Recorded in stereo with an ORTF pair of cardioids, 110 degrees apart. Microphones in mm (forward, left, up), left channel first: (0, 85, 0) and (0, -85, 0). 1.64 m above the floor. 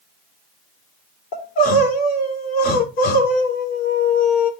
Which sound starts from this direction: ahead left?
Crying, at 1.3 s.